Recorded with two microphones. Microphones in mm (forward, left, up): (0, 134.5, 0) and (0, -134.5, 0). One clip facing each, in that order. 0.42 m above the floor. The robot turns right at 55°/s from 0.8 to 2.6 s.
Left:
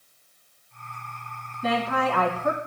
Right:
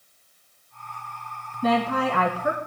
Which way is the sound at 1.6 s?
65° right.